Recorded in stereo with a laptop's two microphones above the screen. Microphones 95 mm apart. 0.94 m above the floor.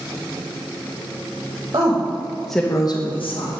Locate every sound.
1.7 s a woman speaking: 45° right (ahead or behind), 1.5 m; by 3.5 s 70° left (ahead or behind), 1.6 m